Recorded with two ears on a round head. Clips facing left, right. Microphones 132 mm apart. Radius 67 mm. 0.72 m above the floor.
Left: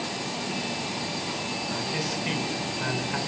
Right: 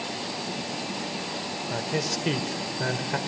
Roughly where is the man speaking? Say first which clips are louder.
Right 4 dB; right.